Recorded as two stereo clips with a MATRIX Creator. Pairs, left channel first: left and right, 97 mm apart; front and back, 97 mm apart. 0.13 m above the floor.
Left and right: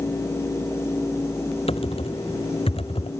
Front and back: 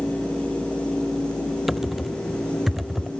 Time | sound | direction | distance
1.7 | typing on a keyboard | 95° left | ?